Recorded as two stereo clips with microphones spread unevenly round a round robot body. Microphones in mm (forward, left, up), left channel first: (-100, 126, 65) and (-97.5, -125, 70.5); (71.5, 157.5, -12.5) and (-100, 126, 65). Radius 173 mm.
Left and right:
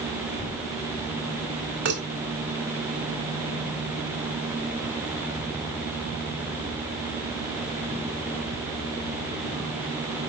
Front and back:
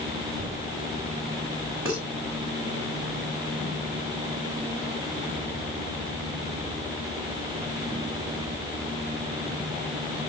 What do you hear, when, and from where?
1.9 s dishes clattering: 80° right, 4.5 m